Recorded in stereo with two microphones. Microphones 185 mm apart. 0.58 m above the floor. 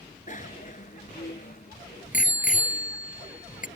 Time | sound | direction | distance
0.3 | a bicycle bell | 45° left (ahead or behind) | ?